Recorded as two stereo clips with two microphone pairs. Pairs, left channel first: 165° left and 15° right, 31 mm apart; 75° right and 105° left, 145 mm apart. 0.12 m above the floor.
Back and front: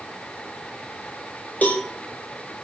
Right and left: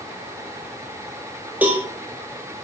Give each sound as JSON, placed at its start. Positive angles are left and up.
{"t": 1.6, "sound": "a cowbell", "azimuth_deg": 180, "distance_m": 0.9}